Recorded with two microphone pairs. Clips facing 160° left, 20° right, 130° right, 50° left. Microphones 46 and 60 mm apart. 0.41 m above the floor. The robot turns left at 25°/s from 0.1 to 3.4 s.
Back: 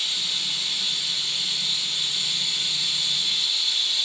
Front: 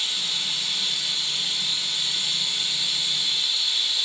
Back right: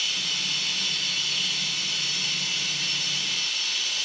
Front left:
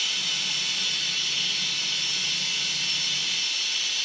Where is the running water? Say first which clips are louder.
Even, even; 15° right, 5 m; by 4.1 s 95° right, 5 m.